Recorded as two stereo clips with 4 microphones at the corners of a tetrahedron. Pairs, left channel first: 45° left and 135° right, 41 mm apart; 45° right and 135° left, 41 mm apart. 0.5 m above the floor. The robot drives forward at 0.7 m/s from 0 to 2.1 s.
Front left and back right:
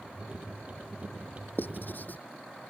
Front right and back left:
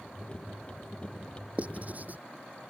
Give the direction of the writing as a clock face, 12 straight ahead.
9 o'clock.